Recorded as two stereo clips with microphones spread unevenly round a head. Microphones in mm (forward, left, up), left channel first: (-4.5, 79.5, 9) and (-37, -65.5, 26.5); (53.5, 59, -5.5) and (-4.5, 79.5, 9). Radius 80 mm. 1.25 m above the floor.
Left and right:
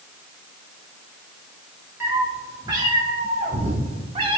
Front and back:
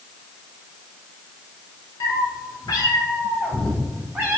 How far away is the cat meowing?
About 1.8 m.